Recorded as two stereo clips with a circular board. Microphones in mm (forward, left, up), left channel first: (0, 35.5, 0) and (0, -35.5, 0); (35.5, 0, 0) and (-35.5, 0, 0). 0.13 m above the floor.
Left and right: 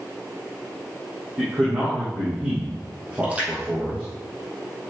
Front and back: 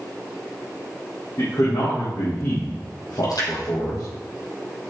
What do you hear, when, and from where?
1.4 s a man speaking: 20° right, 5 m
3.2 s a splash: 20° right, 4 m